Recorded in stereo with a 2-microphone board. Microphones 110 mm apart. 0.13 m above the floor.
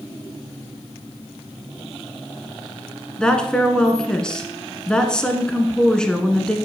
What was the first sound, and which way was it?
A woman speaking, 5° left (ahead or behind).